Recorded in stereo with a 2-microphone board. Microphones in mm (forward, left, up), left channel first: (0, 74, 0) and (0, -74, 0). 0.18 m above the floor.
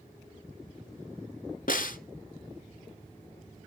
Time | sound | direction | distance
1.7 | a snare drum | 65° left (ahead or behind) | 0.7 m